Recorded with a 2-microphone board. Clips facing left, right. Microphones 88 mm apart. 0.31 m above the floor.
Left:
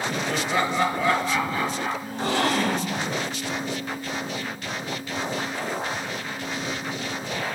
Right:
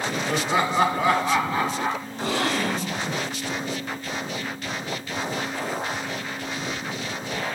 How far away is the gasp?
About 1.0 m.